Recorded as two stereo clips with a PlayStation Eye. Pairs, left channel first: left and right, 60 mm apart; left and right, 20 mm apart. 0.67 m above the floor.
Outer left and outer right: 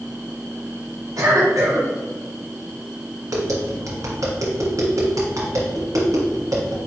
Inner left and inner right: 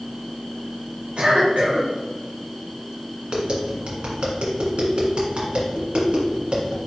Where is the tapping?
65° right (ahead or behind), 1.7 m.